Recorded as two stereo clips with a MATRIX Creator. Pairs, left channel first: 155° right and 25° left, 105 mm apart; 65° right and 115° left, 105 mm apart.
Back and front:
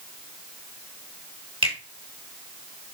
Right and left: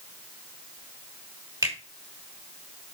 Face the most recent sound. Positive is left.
turn(degrees=55)